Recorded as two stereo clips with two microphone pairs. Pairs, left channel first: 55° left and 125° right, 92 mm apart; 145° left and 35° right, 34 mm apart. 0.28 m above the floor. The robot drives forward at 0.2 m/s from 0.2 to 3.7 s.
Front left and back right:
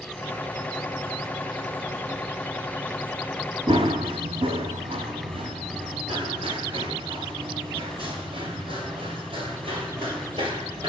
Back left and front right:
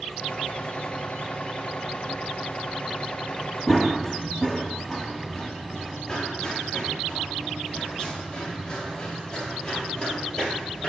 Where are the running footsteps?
125° right, 1.0 m; by 10.9 s 145° right, 5 m.